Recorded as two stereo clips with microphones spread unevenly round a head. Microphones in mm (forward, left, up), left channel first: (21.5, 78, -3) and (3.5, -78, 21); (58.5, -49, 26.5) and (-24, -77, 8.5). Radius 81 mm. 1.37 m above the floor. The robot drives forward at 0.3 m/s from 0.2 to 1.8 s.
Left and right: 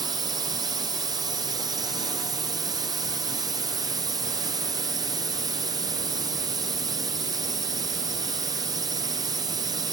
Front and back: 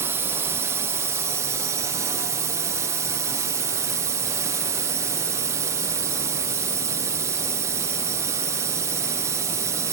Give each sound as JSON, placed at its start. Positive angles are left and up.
{"t": 0.0, "sound": "a drone", "azimuth_deg": -160}